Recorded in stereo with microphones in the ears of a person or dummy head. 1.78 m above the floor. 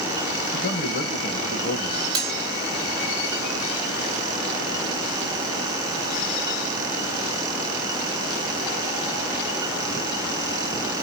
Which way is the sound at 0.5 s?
50° left (ahead or behind).